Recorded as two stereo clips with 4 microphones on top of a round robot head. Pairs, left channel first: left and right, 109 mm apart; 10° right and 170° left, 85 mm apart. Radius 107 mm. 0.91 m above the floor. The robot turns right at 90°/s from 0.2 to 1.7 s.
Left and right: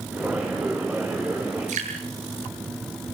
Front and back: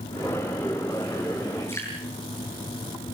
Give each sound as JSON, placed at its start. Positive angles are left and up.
{"t": 1.7, "sound": "dripping", "azimuth_deg": -75, "distance_m": 9.0}